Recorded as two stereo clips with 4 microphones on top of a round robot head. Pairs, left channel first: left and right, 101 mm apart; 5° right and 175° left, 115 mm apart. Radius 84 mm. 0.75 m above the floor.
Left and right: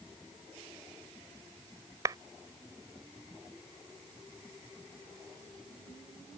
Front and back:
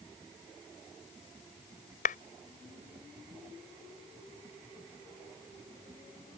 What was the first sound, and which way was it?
A clap, 20° right.